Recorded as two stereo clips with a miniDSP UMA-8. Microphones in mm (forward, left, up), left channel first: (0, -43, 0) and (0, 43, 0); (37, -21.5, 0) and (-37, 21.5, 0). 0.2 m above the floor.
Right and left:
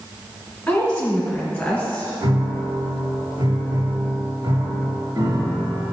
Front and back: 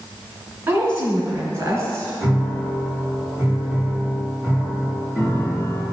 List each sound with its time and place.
0.7 s a woman speaking: 165° right, 2.5 m
2.2 s a piano: 85° left, 2 m